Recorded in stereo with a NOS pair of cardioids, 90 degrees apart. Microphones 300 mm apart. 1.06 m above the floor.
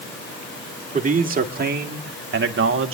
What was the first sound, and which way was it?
A man speaking, 25° right.